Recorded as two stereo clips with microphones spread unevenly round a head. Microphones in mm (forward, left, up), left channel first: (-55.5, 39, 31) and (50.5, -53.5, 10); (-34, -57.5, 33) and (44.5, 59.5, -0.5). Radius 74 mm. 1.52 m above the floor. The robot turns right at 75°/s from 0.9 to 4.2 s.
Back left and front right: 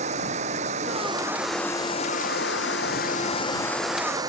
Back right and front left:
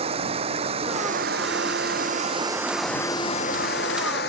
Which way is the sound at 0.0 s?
5° left.